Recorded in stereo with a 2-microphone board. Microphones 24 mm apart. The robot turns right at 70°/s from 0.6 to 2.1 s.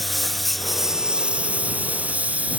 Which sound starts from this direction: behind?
A lawn mower, at 0.0 s.